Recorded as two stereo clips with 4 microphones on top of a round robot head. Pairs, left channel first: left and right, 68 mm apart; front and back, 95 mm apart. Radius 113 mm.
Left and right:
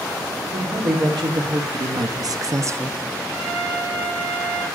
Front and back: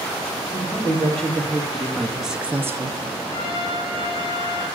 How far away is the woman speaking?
About 3 m.